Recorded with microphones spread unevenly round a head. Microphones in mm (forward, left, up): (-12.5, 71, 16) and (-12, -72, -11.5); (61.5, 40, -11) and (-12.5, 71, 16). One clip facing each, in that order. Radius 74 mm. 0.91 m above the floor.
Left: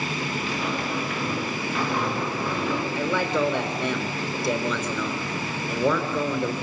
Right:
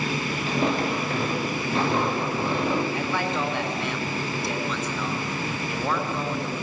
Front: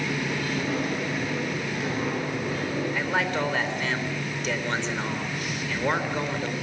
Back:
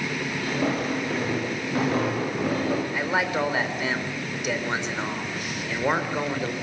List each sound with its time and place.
0.5 s footsteps: 145° right, 7.5 m; by 2.8 s 160° right, 6.5 m
2.9 s a man speaking: 75° left, 4 m